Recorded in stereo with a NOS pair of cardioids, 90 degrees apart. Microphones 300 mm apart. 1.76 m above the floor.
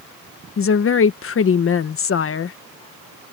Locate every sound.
0.6 s a woman speaking: 50° left